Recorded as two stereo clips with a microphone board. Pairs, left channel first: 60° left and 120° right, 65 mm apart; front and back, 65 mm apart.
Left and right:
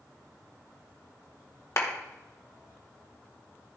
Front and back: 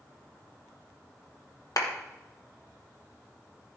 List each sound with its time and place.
1.8 s a clap: 20° left, 1.3 m